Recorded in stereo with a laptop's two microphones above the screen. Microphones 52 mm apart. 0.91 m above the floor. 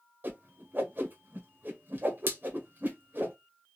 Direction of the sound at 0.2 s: 40° right (ahead or behind).